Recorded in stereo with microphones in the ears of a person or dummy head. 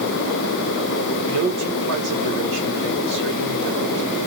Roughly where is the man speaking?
Right.